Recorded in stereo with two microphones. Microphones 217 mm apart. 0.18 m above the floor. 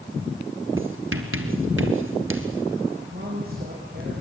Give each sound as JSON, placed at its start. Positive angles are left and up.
{"t": 0.8, "sound": "writing", "side_deg": -70, "distance_m": 2.5}
{"t": 3.1, "sound": "a woman speaking", "side_deg": -45, "distance_m": 5.5}